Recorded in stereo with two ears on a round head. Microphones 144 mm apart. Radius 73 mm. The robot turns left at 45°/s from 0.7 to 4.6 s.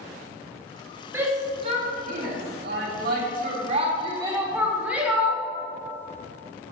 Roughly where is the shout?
Centre.